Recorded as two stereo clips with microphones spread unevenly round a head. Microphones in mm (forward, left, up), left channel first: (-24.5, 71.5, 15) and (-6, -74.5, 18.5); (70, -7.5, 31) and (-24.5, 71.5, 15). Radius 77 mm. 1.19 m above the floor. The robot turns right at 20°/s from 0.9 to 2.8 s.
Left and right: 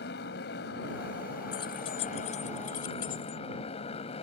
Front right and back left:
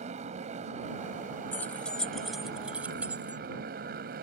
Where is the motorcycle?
110° left; by 4.2 s 150° left.